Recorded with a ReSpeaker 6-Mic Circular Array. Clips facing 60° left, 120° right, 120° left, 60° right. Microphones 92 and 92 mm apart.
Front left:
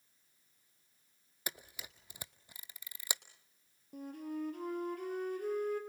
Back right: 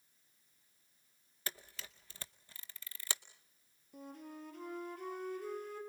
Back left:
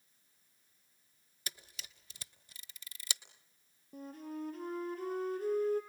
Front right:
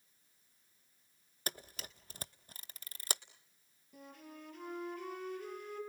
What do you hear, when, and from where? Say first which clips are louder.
1.5 s a camera shutter: front left 1 dB, front right 6 dB; 15° right, 0.7 m
3.9 s a flute: front left 8 dB, back left 9 dB; 75° left, 3.5 m